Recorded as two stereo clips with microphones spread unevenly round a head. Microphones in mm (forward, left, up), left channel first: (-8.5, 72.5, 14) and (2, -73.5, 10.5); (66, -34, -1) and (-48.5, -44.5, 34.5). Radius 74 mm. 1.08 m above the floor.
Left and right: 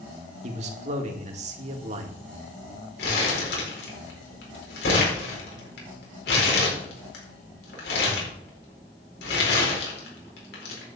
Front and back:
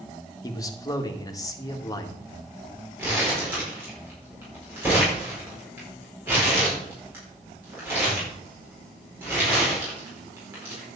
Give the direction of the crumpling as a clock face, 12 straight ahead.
8 o'clock.